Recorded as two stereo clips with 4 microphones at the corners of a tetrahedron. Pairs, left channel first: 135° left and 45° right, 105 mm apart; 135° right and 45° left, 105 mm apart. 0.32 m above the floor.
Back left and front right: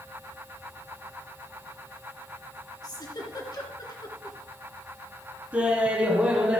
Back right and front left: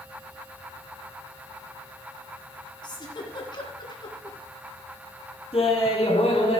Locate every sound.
2.8 s a giggle: straight behind, 2 m
5.5 s laughter: 120° right, 3 m